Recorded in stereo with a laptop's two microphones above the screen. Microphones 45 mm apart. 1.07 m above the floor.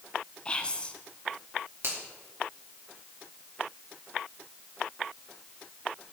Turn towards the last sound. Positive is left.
turn(degrees=-60)  # may be behind; listen again after turning